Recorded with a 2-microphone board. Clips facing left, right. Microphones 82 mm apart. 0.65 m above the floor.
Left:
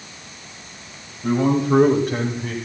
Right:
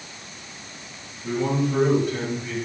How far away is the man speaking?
About 4 m.